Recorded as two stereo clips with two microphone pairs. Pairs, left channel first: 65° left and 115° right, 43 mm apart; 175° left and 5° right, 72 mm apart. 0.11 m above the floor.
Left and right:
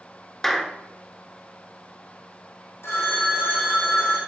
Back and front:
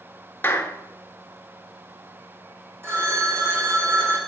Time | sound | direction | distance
0.4 | a clap | 140° left | 1.0 m
2.8 | a phone ringing | 50° left | 3.5 m